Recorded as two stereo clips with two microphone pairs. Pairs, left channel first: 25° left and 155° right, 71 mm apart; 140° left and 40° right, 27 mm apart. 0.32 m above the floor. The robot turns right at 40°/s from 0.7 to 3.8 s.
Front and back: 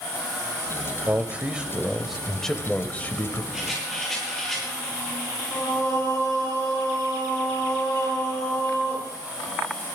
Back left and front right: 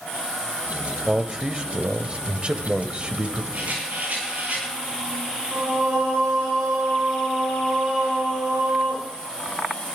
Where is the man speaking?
105° right, 1.0 m; by 3.4 s 10° right, 1.0 m.